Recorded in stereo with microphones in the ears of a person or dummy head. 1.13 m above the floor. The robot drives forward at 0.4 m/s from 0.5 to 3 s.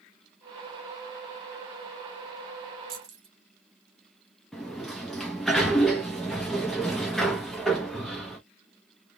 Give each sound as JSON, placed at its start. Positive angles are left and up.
{"t": 2.9, "sound": "keys jangling", "side_deg": -40, "distance_m": 1.1}
{"t": 4.5, "sound": "a sliding door", "side_deg": 0, "distance_m": 0.7}